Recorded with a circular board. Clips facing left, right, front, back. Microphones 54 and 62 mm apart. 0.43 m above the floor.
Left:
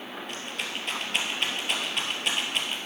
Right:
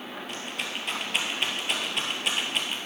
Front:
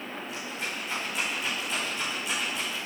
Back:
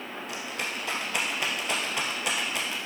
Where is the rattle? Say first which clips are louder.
Right 1 dB, back 3 dB; straight behind, 2 m.